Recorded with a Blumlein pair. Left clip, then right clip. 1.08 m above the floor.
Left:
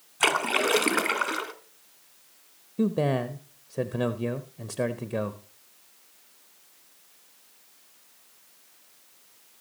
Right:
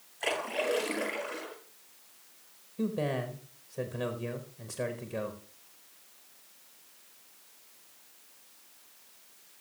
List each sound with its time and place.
0.2 s a splash: 55° left, 2 m
2.8 s a man speaking: 25° left, 0.9 m